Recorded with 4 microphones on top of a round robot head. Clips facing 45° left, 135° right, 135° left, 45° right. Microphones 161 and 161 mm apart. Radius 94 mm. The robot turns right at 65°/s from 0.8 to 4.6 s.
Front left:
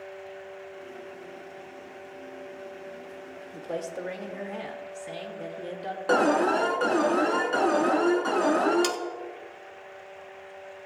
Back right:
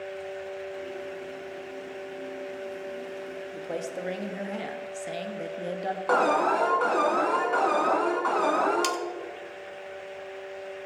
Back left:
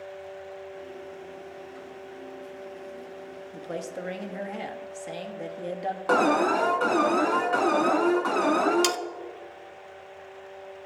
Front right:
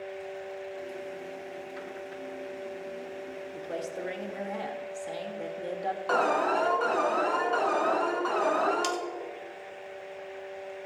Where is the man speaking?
130° left, 1.6 m; by 6.0 s 160° right, 1.6 m.